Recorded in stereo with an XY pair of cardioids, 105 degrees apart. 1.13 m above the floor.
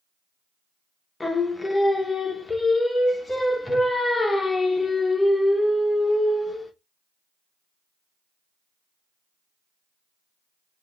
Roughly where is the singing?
Ahead.